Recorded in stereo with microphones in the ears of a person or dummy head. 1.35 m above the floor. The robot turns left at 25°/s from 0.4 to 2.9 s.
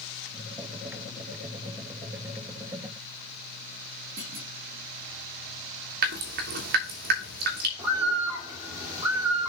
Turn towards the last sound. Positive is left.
turn(degrees=-30)  # may be behind; listen again after turning